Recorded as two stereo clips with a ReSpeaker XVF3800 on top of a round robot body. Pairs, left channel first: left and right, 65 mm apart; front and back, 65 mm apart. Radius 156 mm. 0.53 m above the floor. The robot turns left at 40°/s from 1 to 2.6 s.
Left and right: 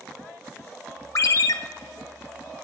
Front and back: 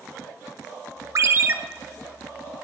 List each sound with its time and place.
1.1 s a ringtone: 135° left, 0.5 m; by 1.5 s 120° left, 0.5 m